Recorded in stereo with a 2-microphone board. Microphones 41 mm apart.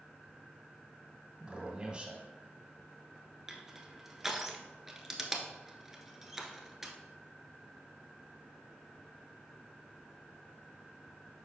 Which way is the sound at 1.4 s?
25° right (ahead or behind).